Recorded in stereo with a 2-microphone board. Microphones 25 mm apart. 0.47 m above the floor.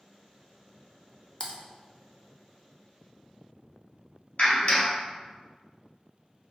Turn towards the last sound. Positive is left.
turn(degrees=65)  # may be behind; listen again after turning